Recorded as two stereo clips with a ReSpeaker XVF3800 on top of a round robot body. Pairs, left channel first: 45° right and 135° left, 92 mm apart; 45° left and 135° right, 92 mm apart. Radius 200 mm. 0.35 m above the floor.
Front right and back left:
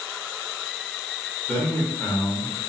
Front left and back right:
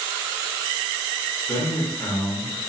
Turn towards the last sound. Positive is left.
turn(degrees=0)